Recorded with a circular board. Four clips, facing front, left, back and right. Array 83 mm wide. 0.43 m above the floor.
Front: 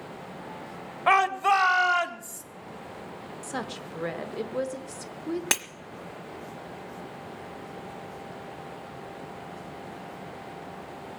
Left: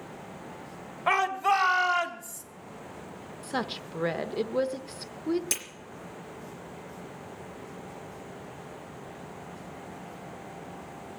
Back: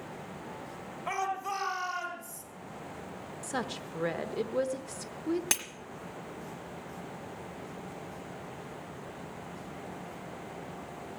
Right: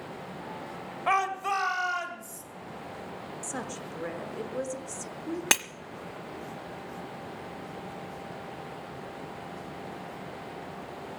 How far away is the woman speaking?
About 0.9 m.